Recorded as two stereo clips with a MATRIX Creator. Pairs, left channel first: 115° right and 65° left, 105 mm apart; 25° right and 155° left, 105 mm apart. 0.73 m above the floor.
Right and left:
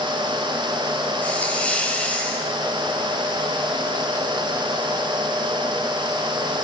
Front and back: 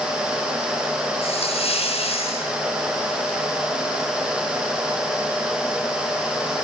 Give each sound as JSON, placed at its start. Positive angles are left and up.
{"t": 1.2, "sound": "a hiss", "azimuth_deg": -35, "distance_m": 5.0}